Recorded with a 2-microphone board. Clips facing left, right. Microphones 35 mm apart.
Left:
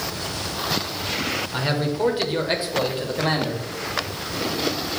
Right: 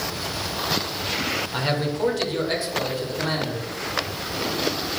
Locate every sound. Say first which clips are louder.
1.5 s a man speaking: left 1 dB; centre (ahead or behind), 0.9 m; by 3.6 s 55° left (ahead or behind), 1.4 m